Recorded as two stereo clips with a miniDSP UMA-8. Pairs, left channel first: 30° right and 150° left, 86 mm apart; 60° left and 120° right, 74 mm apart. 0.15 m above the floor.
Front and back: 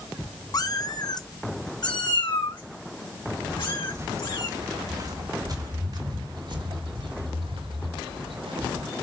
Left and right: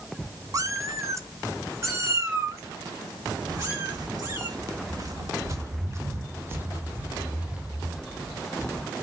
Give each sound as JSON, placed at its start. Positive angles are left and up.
{"t": 0.5, "sound": "a cat meowing", "azimuth_deg": -75, "distance_m": 0.7}
{"t": 3.5, "sound": "footsteps", "azimuth_deg": -150, "distance_m": 3.0}